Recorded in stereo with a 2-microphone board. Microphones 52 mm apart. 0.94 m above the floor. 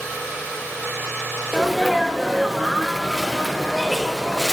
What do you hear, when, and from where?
1.5 s a sneeze: 5° right (ahead or behind), 0.9 m